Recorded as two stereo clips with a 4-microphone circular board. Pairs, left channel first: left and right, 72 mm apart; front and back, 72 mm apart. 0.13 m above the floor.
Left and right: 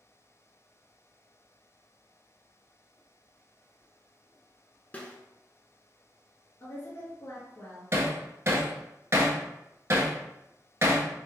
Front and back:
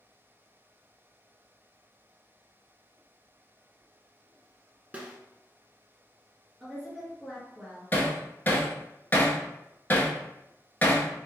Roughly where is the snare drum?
Behind left.